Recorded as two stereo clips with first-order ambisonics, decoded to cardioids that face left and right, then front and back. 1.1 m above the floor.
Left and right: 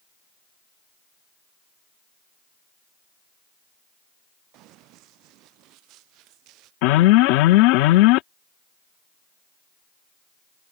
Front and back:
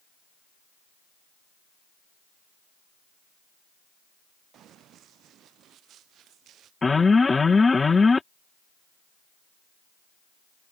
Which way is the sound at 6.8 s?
80° left.